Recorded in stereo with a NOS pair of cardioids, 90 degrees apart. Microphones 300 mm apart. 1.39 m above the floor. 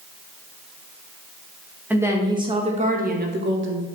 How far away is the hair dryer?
I don't hear a hair dryer.